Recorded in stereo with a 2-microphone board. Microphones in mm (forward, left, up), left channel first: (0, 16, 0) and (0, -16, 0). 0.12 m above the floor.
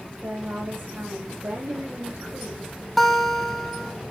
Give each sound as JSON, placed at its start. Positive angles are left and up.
{"t": 0.2, "sound": "a woman speaking", "side_deg": -75, "distance_m": 6.5}
{"t": 3.0, "sound": "a guitar", "side_deg": 5, "distance_m": 2.0}